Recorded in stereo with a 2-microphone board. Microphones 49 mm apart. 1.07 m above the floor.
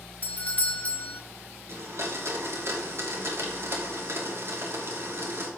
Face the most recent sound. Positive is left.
turn(degrees=-60)  # may be behind; listen again after turning